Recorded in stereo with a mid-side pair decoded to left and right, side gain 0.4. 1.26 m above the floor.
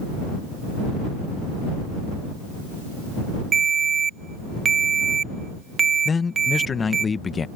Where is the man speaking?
40° left.